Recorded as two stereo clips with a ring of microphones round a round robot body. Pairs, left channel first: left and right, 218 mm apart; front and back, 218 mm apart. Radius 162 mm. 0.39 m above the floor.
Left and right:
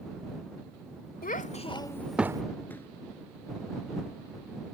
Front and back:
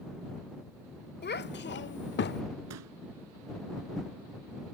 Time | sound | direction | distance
1.2 | a child speaking | 40° left | ?
2.7 | a pop | 175° left | ?